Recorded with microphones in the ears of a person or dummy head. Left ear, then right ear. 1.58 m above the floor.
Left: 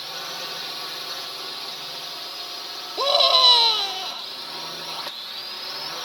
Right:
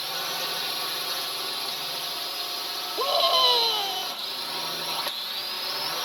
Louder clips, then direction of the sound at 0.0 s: Right 2 dB; 5° right (ahead or behind).